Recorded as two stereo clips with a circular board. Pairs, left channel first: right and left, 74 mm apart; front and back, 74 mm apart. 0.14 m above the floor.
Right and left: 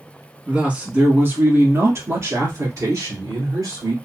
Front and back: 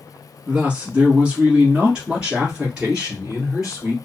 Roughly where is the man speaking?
Behind left.